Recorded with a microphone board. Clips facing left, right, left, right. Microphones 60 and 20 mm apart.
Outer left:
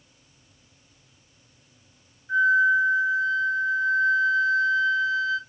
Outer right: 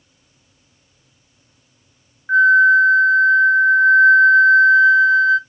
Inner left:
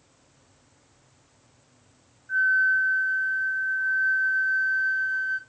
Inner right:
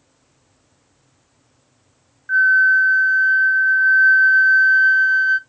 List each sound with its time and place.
2.3 s a flute: 55° right (ahead or behind), 0.6 m